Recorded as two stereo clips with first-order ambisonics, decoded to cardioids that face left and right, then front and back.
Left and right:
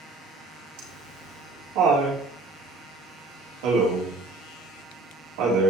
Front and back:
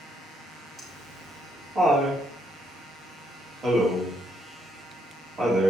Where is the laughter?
105° right, 4 m.